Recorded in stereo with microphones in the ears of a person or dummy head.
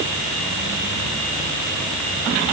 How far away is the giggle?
No giggle in this recording.